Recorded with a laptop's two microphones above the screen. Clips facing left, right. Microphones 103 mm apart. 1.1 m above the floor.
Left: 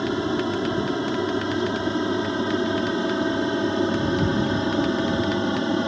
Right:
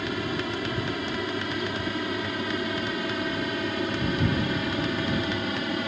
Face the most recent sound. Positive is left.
turn(degrees=30)  # may be behind; listen again after turning